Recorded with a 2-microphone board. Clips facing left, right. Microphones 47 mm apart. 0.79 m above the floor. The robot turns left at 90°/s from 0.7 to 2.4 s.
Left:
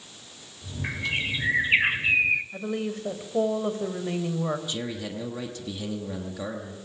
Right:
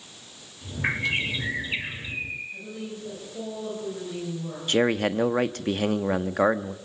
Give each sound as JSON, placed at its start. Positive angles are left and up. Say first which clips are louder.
{"t": 0.8, "sound": "a bird", "louder": "right 3 dB", "azimuth_deg": -140, "distance_m": 1.4}
{"t": 2.5, "sound": "a woman speaking", "louder": "left 6 dB", "side_deg": 60, "distance_m": 4.0}
{"t": 4.7, "sound": "a man speaking", "louder": "right 10 dB", "side_deg": -55, "distance_m": 1.3}